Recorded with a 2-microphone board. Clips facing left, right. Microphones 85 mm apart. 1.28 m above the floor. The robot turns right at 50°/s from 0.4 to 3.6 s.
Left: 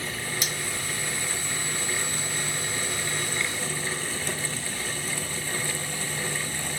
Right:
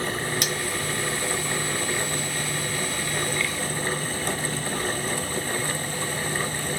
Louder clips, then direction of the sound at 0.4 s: Right 5 dB; 60° right (ahead or behind).